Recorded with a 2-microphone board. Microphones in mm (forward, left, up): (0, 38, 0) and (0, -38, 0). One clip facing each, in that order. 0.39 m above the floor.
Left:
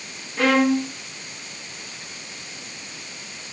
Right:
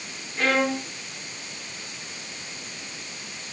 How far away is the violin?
About 3.5 m.